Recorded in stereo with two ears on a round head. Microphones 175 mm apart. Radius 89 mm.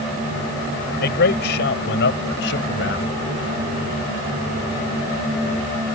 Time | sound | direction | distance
1.0 | a man speaking | 60° left (ahead or behind) | ?